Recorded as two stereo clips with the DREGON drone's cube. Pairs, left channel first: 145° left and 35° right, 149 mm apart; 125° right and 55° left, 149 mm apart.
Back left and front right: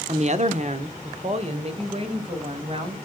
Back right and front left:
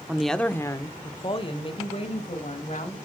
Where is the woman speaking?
25° right, 0.8 m; by 3.0 s 85° right, 3 m.